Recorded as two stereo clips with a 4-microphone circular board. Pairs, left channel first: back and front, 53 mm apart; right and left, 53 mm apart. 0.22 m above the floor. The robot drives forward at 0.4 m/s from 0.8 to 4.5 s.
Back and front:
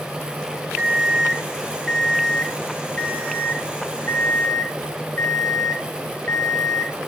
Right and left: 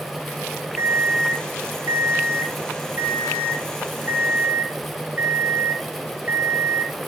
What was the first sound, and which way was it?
An alarm clock, 65° left.